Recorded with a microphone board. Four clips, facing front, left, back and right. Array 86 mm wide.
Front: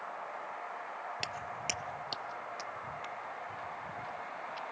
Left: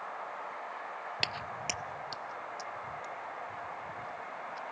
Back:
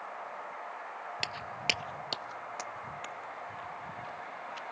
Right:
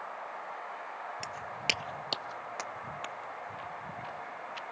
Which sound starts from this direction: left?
Footsteps, at 1.2 s.